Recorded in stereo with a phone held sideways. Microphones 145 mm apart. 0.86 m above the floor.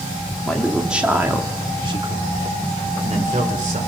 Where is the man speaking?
5° left (ahead or behind), 2 m; by 3.8 s 65° right (ahead or behind), 3.5 m.